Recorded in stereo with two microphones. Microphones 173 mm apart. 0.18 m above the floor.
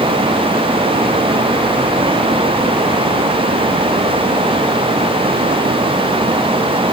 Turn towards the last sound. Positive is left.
No sound to turn to.